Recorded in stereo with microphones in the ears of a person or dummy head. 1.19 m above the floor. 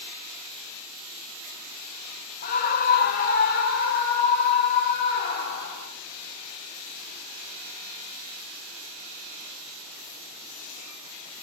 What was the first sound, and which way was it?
A scream, 50° left (ahead or behind).